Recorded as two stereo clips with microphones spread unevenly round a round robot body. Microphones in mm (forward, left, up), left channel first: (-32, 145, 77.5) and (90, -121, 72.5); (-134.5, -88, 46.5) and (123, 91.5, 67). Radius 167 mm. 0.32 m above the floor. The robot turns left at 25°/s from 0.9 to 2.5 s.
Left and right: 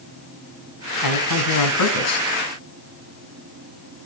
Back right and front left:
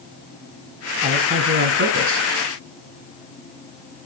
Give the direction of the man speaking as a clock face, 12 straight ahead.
8 o'clock.